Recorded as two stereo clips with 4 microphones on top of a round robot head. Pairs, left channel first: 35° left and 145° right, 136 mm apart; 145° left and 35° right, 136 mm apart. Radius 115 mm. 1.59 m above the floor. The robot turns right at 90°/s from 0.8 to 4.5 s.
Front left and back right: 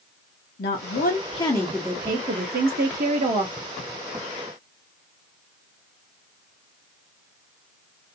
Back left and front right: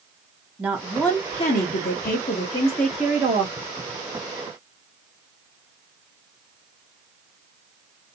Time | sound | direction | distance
0.6 | a woman speaking | 40° left | 0.7 m